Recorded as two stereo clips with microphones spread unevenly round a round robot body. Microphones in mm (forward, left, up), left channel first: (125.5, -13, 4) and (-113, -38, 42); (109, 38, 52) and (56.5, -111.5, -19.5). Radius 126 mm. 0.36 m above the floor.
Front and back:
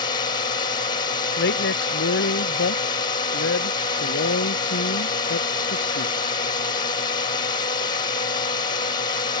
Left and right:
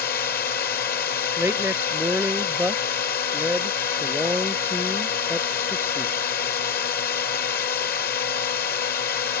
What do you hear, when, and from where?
0.0 s a drone: 55° left
1.4 s a woman speaking: 35° right